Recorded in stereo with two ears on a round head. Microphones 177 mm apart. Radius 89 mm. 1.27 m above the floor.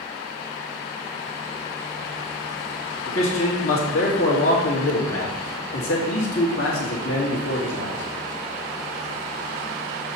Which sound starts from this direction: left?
A man speaking, at 3.1 s.